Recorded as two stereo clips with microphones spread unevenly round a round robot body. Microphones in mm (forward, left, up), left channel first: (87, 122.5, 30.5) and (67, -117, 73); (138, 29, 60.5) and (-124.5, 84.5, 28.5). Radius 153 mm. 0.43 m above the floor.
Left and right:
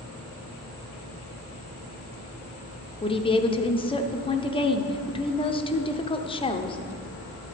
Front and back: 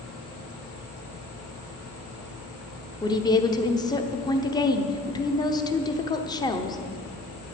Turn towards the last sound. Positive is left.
turn(degrees=65)